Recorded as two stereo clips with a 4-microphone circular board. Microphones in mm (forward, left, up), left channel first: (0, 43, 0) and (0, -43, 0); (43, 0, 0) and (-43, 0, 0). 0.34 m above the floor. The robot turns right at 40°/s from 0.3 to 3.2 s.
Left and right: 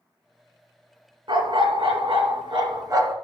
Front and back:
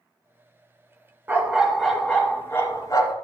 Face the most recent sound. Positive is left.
turn(degrees=-35)